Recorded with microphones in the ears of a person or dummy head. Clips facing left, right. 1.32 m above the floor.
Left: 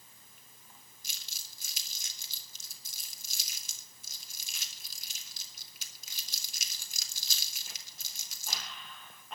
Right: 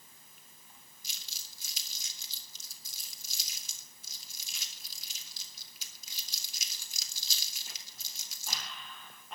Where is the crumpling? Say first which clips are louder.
Even; 50° left (ahead or behind), 3 m.